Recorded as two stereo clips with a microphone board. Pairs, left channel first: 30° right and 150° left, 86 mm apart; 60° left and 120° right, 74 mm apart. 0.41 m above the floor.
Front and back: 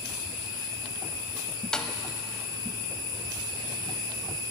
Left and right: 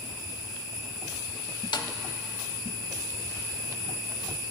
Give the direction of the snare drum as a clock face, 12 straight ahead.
10 o'clock.